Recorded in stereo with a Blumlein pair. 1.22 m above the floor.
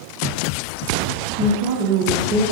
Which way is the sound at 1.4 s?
40° right.